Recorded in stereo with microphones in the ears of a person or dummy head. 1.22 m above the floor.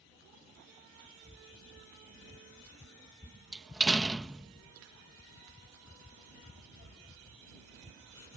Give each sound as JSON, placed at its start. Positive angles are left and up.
{"t": 3.5, "sound": "a door slam", "side_deg": -5}